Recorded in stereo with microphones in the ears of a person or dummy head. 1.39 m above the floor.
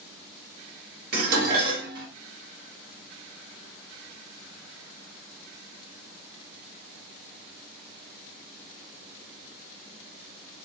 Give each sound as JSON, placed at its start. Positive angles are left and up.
{"t": 1.1, "sound": "dishes clattering", "side_deg": -55, "distance_m": 1.2}